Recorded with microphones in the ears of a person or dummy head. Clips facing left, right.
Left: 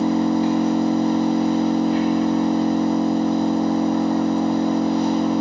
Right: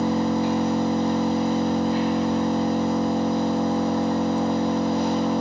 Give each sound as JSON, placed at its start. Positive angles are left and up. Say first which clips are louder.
{"t": 0.0, "sound": "an engine running", "louder": "left 4 dB", "side_deg": 60, "distance_m": 1.0}